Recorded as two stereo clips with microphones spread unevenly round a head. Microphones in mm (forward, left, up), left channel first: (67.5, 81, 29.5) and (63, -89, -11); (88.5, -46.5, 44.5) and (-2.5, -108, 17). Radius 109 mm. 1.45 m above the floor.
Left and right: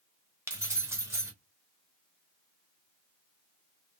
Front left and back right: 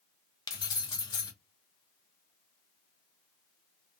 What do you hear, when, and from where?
0.5 s keys jangling: 10° right, 0.7 m